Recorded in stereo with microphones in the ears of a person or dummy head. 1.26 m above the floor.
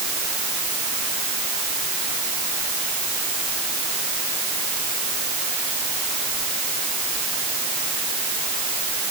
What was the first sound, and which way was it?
Only background noise.